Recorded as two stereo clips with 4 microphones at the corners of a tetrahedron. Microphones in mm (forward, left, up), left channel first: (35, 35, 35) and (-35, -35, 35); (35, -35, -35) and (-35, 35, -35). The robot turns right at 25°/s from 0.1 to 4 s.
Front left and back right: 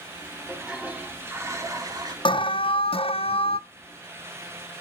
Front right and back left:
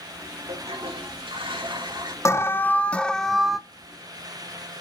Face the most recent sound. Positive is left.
turn(degrees=60)